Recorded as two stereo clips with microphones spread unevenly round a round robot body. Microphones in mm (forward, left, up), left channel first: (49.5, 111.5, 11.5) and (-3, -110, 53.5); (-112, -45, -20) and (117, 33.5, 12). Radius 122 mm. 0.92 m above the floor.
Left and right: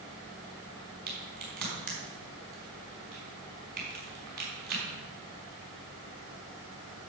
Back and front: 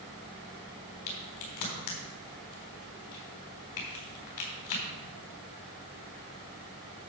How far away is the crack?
About 4 m.